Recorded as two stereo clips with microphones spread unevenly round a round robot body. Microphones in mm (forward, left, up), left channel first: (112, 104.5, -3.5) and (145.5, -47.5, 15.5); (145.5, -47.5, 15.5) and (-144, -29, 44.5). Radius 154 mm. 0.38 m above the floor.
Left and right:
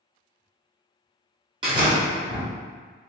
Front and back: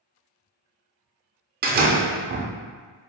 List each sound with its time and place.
1.6 s a door slam: 135° right, 0.6 m